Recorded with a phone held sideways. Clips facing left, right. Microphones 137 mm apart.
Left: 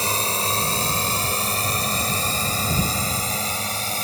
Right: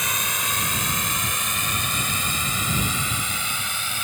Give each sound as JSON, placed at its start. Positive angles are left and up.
{"t": 0.0, "sound": "a drone", "side_deg": 35}